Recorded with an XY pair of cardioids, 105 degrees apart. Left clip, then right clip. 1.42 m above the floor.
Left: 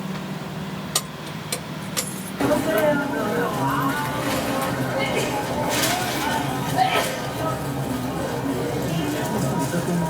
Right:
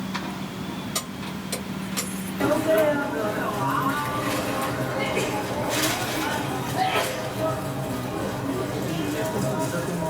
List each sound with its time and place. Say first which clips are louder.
0.9 s keys jangling: left 6 dB; 60° left, 1.3 m; by 2.3 s 25° left, 0.9 m
2.4 s a sneeze: left 1 dB; 30° left, 1.4 m